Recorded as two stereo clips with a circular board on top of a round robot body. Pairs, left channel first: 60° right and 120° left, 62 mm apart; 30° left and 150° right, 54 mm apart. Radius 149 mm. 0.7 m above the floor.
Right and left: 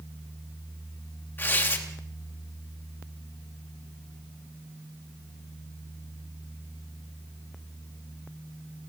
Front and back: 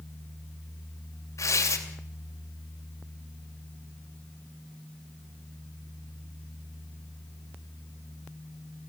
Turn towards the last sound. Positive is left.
turn(degrees=-5)